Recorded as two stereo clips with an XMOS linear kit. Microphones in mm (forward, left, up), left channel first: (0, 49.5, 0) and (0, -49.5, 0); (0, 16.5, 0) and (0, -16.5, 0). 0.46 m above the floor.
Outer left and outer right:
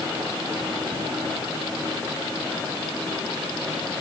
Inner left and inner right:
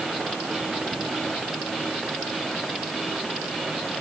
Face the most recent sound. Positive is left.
No sound to turn to.